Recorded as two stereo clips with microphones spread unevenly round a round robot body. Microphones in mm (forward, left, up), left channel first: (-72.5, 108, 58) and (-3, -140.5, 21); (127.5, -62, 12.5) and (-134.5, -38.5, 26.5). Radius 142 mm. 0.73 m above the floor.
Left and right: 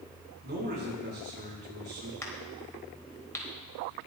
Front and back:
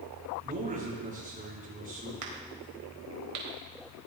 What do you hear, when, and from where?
0.4 s a man speaking: 125° right, 9 m
2.2 s a crack: 175° right, 4.5 m